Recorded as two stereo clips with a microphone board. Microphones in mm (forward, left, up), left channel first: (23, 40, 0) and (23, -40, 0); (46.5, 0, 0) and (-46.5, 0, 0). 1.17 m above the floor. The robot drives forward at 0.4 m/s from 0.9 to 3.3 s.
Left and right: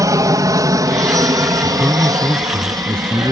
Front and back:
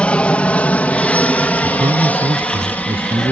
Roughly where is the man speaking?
Behind.